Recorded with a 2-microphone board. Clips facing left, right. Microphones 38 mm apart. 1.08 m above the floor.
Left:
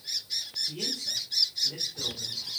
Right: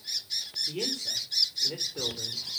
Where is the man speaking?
45° right (ahead or behind), 3.5 m.